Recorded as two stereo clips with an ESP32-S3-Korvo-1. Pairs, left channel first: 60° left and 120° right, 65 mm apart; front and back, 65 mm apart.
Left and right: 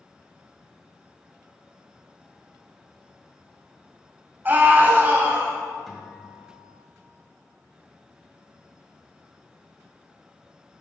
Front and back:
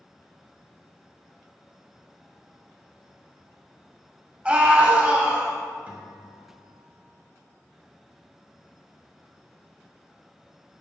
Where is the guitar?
150° left, 1.5 m.